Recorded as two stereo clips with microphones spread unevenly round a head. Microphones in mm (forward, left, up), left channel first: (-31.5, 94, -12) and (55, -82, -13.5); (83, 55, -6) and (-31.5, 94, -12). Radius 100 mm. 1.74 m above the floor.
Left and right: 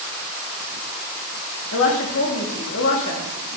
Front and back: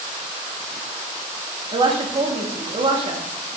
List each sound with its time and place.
1.7 s a woman speaking: 120° left, 1.4 m